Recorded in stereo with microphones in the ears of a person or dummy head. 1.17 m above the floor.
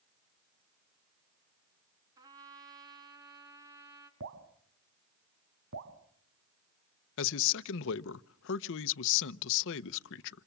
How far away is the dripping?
About 3 m.